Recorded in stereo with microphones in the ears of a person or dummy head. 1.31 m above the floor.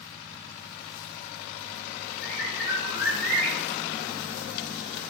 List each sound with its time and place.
2.2 s a bird: 45° left (ahead or behind), 1.2 m